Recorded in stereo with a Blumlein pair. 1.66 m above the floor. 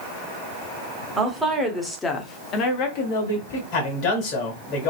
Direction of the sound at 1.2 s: 10° right.